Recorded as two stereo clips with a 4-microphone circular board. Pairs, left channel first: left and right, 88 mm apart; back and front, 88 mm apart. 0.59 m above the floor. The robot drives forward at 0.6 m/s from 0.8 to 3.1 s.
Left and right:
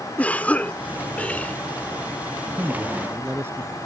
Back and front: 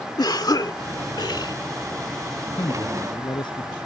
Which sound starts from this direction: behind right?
A man speaking, at 2.5 s.